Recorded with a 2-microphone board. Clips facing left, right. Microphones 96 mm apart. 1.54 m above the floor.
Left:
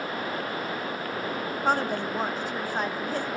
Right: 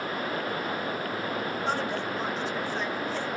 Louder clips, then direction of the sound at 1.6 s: Left 7 dB; 50° left (ahead or behind).